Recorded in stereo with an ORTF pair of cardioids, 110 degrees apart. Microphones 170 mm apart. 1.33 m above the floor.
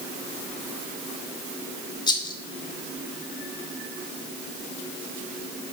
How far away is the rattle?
About 0.7 m.